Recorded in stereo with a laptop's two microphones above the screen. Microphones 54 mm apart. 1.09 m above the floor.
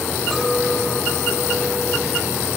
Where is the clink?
Centre (ahead or behind), 0.9 m.